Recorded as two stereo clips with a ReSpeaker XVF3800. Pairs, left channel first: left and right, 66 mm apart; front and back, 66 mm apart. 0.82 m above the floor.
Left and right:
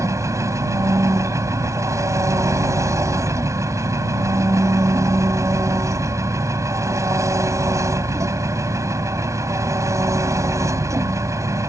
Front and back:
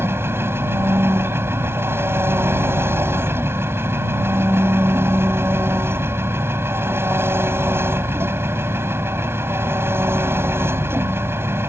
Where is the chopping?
I don't hear chopping.